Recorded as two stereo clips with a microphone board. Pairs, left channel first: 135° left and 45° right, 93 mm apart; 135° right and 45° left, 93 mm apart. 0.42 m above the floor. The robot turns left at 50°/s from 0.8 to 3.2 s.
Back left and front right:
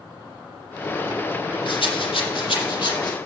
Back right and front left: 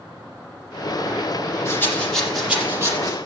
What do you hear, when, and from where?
1.6 s a rattle: 165° left, 5.5 m; by 3.2 s 90° left, 5.5 m